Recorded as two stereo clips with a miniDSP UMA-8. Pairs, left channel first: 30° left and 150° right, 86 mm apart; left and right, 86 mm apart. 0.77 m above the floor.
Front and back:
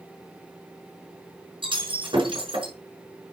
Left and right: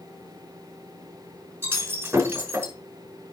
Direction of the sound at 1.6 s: 155° right.